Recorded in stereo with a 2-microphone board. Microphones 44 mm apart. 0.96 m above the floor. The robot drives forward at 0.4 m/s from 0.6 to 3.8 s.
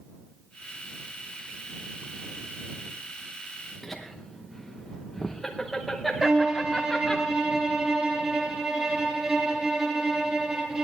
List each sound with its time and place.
3.8 s laughter: 5° left (ahead or behind), 0.9 m
6.2 s a violin: 25° right (ahead or behind), 3.5 m